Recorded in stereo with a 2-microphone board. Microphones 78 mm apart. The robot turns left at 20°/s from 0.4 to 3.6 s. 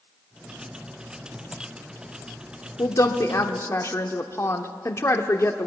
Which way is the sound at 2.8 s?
45° left (ahead or behind).